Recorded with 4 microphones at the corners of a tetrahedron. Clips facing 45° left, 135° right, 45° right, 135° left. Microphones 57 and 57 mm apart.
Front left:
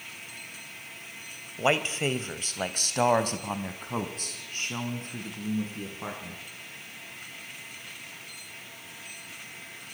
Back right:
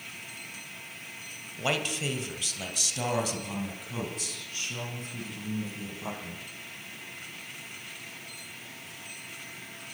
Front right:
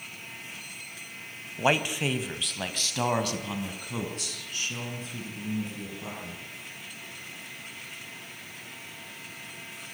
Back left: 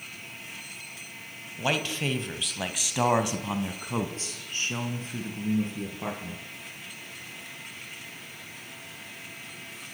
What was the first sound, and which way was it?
A man speaking, straight ahead.